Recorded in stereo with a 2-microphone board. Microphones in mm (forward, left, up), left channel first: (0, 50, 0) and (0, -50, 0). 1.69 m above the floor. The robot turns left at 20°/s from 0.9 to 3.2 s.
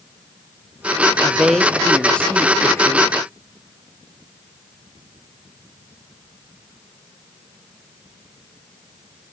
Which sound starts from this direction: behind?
A woman speaking, at 1.2 s.